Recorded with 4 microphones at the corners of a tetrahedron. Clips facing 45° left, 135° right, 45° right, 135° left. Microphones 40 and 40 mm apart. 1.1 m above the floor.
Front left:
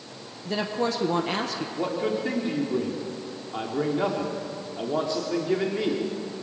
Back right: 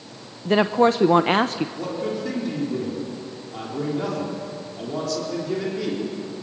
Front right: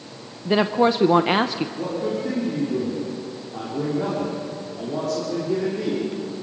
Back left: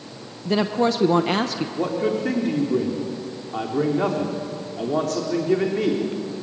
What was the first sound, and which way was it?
A woman speaking, 110° right.